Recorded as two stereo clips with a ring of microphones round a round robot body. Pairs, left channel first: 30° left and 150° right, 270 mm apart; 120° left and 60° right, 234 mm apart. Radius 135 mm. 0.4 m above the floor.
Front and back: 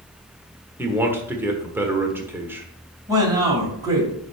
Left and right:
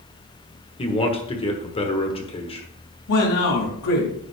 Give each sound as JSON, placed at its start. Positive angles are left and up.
{"t": 0.8, "sound": "a man speaking", "azimuth_deg": 140, "distance_m": 1.3}
{"t": 3.1, "sound": "a man speaking", "azimuth_deg": 135, "distance_m": 2.0}